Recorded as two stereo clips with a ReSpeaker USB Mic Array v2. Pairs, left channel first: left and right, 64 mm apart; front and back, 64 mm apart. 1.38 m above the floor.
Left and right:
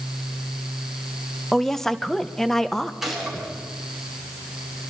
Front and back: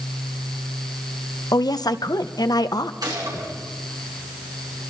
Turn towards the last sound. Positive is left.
turn(degrees=-175)